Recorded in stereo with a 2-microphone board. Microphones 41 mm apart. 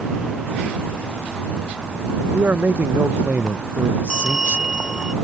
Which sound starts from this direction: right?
A man speaking, at 2.3 s.